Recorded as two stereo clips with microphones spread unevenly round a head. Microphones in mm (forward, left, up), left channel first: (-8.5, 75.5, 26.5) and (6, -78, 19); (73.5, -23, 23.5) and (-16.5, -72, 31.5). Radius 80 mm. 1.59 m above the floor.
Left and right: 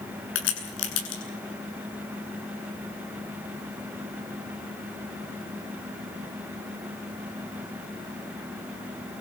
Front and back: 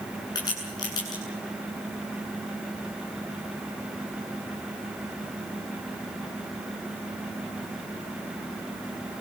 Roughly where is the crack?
Left.